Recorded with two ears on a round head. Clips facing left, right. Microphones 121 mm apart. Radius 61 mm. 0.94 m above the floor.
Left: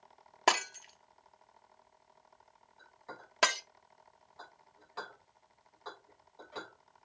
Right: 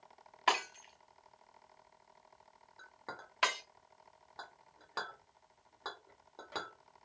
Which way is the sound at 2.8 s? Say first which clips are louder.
Right 1 dB; 65° right (ahead or behind).